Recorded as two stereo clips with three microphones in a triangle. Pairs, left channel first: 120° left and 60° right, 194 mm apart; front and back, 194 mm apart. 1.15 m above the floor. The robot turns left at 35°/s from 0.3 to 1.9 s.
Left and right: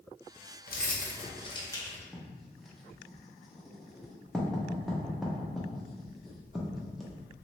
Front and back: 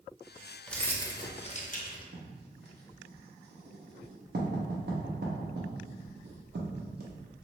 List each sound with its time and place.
0.7 s keys jangling: 85° left, 0.5 m; by 2.0 s 45° left, 0.5 m
2.1 s writing: 150° right, 0.7 m